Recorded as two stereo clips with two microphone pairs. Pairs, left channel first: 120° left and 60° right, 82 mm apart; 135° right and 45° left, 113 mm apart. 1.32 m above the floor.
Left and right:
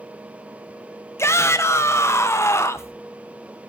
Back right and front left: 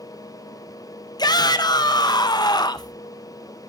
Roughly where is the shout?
Behind.